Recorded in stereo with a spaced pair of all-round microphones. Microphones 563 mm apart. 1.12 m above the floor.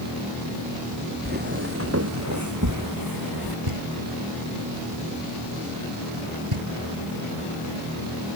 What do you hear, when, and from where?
1.2 s footsteps: 15° right (ahead or behind); by 3.6 s 40° right (ahead or behind)
3.7 s knocking: 60° right (ahead or behind)